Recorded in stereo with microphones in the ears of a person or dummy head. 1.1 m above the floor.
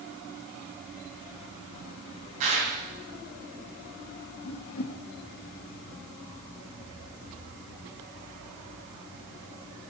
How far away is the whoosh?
About 1.0 m.